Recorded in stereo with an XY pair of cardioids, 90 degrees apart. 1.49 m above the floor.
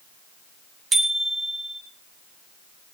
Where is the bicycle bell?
40° right, 5 m.